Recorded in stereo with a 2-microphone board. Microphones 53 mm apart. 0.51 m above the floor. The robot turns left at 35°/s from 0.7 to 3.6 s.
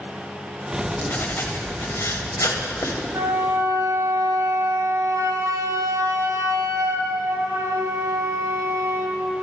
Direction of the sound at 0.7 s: 160° left.